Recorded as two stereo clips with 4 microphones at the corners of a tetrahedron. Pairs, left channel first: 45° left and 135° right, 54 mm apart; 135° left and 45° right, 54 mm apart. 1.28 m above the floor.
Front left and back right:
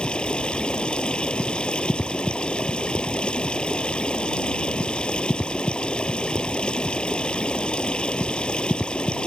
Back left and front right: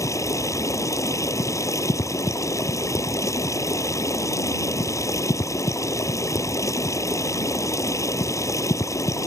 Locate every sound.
0.0 s running water: 115° left